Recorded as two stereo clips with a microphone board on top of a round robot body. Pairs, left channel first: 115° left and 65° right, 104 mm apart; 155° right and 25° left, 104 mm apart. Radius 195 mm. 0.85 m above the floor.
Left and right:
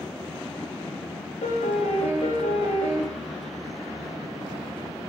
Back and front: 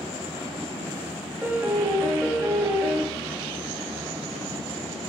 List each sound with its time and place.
1.4 s a piano: 95° left, 0.8 m